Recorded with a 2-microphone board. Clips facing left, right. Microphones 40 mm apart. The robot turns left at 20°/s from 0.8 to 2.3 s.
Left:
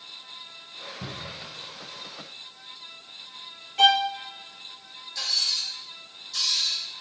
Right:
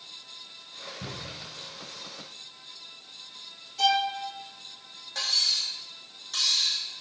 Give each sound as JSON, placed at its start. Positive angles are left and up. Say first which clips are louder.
{"t": 1.0, "sound": "a cupboard door", "louder": "left 2 dB", "side_deg": 40, "distance_m": 2.5}
{"t": 3.8, "sound": "a violin", "louder": "left 5 dB", "side_deg": 55, "distance_m": 1.0}
{"t": 5.2, "sound": "cutlery clinking", "louder": "right 1 dB", "side_deg": -55, "distance_m": 3.0}